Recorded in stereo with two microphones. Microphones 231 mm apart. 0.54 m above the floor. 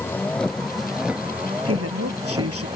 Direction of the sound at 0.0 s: 10° left (ahead or behind).